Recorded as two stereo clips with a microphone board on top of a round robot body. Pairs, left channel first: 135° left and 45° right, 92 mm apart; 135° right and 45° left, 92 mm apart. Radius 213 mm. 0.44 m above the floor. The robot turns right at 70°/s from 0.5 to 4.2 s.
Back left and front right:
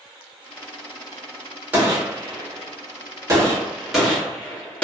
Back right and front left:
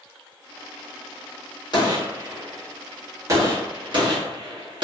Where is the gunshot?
110° right, 1.7 m; by 4.8 s 60° left, 1.7 m.